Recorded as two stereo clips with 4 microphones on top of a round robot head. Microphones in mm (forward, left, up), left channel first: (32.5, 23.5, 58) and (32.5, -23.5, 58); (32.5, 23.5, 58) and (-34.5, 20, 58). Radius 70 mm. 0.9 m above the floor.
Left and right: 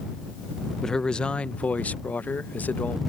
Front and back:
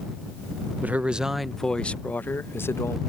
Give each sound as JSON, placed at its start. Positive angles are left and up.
{"t": 0.8, "sound": "a man speaking", "azimuth_deg": 160}